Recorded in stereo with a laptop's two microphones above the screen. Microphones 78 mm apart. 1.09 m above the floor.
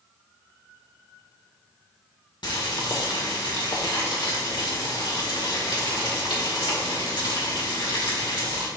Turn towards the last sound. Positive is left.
turn(degrees=75)  # may be behind; listen again after turning